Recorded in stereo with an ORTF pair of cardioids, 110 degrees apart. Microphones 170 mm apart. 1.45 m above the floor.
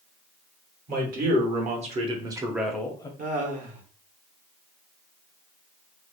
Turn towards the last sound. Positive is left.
turn(degrees=-50)